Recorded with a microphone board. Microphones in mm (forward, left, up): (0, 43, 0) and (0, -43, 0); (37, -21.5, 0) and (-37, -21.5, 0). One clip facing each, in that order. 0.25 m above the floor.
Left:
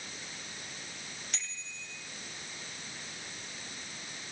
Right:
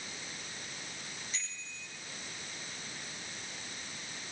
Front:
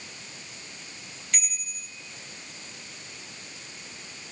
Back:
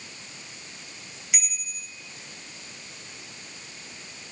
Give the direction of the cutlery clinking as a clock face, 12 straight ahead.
I don't hear cutlery clinking.